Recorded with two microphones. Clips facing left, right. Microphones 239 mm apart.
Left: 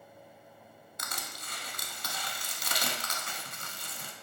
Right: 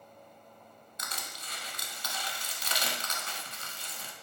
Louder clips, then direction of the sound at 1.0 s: Left 1 dB; 50° left (ahead or behind).